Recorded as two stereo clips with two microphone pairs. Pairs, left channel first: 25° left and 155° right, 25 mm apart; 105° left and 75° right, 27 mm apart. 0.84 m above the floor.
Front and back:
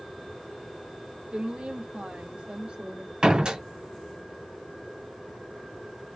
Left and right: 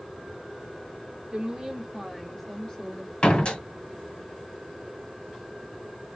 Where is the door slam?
150° left, 1.4 m.